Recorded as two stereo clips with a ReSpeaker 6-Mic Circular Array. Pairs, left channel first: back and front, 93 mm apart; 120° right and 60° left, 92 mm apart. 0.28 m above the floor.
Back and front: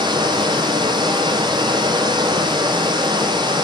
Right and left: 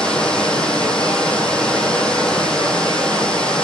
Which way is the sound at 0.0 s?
40° right.